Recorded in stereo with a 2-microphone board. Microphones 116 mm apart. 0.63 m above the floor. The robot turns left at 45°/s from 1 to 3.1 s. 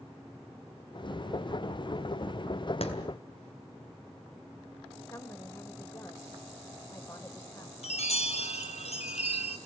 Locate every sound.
2.8 s a clap: 65° left (ahead or behind), 3.5 m
5.1 s a woman speaking: 25° left (ahead or behind), 2.5 m
7.8 s a chime: 70° left (ahead or behind), 2.5 m